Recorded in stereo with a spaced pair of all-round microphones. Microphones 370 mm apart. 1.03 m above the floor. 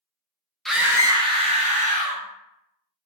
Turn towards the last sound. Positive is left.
turn(degrees=-25)  # may be behind; listen again after turning